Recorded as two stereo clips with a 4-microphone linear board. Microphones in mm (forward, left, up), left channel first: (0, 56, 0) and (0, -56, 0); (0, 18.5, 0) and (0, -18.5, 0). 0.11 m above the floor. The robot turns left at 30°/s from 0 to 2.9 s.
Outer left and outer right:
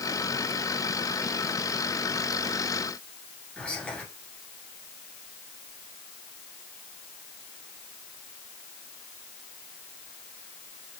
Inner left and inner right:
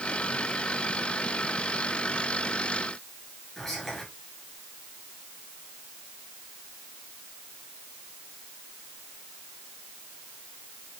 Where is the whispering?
10° left (ahead or behind), 1.5 m.